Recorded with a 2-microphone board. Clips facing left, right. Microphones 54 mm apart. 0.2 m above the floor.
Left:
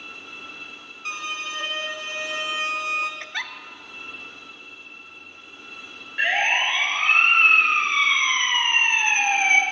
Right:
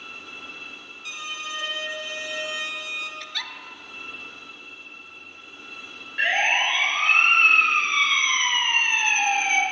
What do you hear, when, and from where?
1.1 s a violin: 50° left (ahead or behind), 1.7 m
3.2 s a giggle: 35° left (ahead or behind), 0.8 m
6.2 s a siren: 5° left (ahead or behind), 5 m; by 9.6 s 45° left (ahead or behind), 2.5 m